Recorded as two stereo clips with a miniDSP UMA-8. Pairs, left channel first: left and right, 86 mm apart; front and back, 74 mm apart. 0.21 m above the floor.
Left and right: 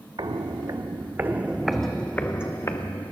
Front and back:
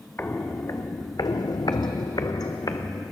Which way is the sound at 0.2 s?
60° right.